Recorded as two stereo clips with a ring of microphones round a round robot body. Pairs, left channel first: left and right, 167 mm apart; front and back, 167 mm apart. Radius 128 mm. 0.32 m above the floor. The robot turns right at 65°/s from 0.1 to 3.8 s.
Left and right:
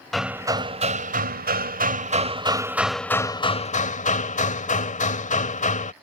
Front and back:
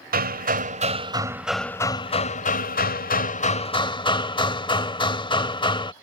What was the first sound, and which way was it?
Hammering, straight behind.